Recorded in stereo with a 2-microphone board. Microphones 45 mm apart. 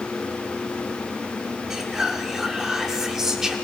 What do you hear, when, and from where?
1.7 s whispering: 10° right (ahead or behind), 1.0 m